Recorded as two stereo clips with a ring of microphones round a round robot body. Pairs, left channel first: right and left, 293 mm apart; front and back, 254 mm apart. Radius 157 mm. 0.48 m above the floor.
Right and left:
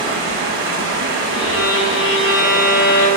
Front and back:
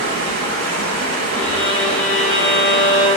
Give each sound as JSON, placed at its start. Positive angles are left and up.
{"t": 0.0, "sound": "running water", "azimuth_deg": 150, "distance_m": 2.5}
{"t": 1.3, "sound": "a violin", "azimuth_deg": -85, "distance_m": 2.5}